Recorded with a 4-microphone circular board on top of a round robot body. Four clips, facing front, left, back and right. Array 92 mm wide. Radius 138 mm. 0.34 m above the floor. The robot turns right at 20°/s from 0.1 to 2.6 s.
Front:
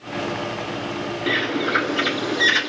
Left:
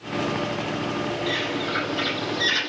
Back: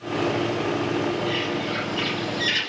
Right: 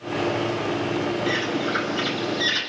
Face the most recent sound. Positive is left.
turn(degrees=5)